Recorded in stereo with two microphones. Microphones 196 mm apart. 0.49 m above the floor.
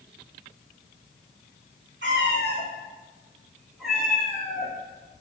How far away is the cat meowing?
About 1.1 m.